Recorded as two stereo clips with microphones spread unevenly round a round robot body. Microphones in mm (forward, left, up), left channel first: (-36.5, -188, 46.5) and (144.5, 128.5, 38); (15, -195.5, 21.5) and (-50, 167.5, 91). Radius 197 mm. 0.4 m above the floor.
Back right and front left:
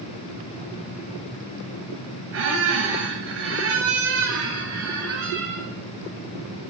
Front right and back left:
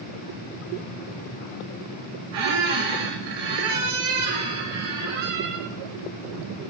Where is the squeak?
120° left, 2.5 m.